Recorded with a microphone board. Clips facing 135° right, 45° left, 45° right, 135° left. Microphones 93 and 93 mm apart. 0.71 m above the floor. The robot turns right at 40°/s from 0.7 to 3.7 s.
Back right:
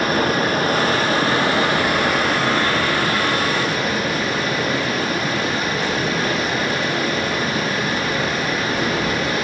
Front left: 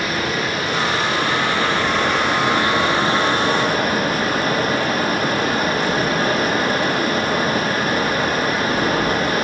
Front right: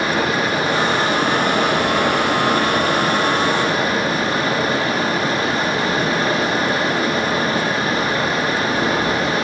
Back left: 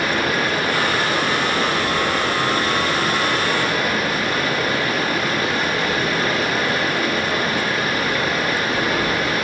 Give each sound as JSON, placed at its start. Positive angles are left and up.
{"t": 0.0, "sound": "running water", "azimuth_deg": -110, "distance_m": 0.9}